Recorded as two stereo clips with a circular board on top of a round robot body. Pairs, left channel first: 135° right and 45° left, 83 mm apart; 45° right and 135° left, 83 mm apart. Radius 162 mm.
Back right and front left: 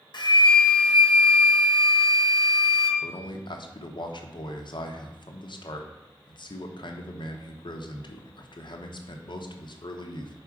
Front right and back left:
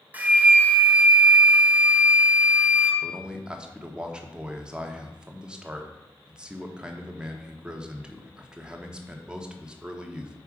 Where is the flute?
155° right, 1.3 m.